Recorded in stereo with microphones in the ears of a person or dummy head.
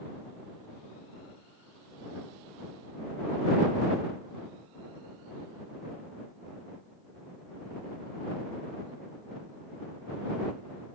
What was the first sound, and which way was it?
Only background noise.